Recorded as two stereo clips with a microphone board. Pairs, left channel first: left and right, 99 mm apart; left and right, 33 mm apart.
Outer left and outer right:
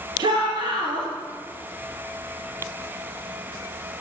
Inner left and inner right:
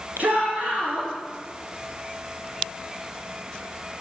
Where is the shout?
50° right (ahead or behind), 1.9 m.